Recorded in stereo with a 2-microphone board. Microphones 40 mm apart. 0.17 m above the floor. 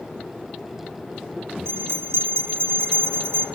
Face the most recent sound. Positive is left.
turn(degrees=-70)  # may be behind; listen again after turning